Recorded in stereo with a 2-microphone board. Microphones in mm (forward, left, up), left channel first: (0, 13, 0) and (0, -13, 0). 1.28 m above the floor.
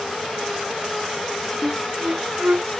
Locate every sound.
1.6 s a flute: 80° right